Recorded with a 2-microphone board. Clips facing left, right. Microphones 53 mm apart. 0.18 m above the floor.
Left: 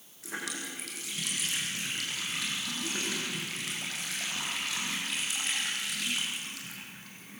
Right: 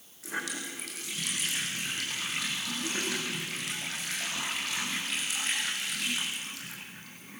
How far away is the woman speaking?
I don't hear a woman speaking.